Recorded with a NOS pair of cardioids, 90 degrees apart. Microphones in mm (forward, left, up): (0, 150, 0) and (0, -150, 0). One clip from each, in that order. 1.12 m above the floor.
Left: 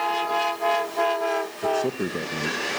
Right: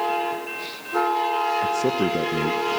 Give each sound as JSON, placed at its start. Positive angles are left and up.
{"t": 1.6, "sound": "a man speaking", "azimuth_deg": -20, "distance_m": 0.7}